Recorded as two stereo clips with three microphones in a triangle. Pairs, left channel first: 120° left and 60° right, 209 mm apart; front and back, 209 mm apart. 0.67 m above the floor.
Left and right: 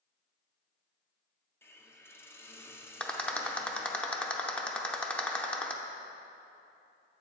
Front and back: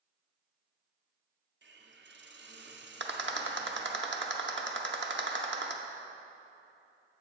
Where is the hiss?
160° right, 0.6 m.